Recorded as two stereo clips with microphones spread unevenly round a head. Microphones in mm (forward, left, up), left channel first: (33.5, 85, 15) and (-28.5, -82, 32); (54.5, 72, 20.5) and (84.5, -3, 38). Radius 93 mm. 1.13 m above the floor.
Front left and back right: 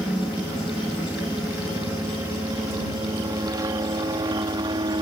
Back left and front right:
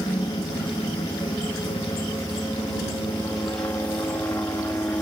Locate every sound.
0.0 s a helicopter: 165° left; by 5.0 s 175° right